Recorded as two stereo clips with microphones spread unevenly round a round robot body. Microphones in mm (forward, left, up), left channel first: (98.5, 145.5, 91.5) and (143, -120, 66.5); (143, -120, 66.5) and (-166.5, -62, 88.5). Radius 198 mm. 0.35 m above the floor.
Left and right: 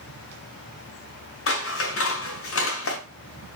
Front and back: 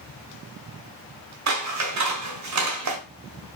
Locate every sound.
1.5 s scissors: 140° left, 1.7 m